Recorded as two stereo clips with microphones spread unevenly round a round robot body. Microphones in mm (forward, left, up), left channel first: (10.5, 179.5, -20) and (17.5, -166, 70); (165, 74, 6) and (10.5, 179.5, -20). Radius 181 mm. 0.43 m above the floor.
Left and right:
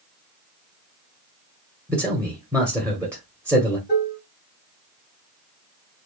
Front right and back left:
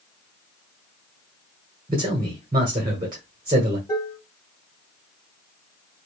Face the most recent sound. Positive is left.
turn(degrees=35)